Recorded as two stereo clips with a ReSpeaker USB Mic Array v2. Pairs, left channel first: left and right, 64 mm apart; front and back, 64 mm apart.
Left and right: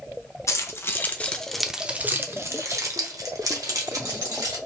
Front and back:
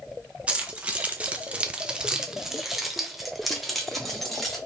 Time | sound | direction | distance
0.5 | keys jangling | 115° left | 0.8 m